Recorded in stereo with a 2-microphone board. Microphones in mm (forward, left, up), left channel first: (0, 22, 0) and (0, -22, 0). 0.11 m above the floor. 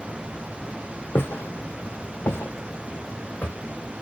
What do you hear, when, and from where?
1.1 s footsteps: 65° left (ahead or behind), 0.8 m; by 3.5 s 40° left (ahead or behind), 1.3 m